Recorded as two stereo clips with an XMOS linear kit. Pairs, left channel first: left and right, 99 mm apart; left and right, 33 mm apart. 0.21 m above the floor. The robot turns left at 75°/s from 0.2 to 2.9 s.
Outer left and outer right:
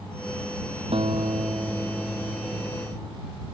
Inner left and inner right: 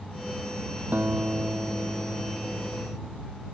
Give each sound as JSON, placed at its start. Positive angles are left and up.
{"t": 0.9, "sound": "a guitar", "azimuth_deg": -95}